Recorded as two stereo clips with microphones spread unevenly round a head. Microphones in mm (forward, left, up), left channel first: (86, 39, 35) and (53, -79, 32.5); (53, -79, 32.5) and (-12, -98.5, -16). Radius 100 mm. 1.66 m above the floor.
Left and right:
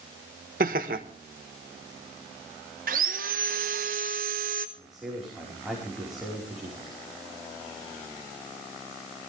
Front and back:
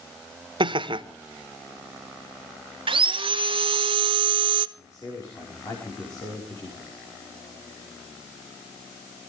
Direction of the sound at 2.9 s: 150° right.